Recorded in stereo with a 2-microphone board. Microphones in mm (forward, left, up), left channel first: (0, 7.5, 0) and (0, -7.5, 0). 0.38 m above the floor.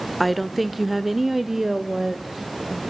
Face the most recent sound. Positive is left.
turn(degrees=-30)  # may be behind; listen again after turning